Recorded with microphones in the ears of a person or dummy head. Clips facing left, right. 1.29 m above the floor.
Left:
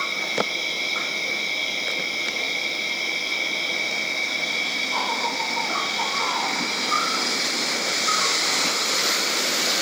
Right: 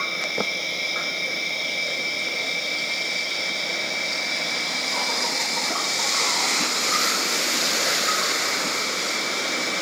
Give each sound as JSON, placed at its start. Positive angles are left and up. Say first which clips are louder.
{"t": 0.0, "sound": "an insect", "louder": "left 2 dB", "side_deg": 50, "distance_m": 5.0}